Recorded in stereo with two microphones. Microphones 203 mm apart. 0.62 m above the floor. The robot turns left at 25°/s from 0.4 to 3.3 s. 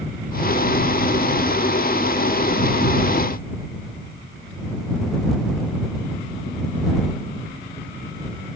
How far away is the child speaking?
I don't hear a child speaking.